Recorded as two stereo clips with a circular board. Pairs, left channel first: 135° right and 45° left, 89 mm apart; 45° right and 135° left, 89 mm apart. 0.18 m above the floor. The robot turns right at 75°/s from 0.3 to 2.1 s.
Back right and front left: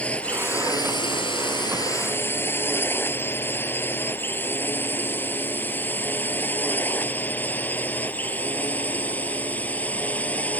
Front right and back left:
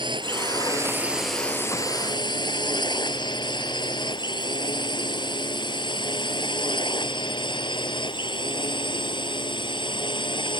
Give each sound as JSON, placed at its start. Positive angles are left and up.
{"t": 0.0, "sound": "a drone", "azimuth_deg": 150}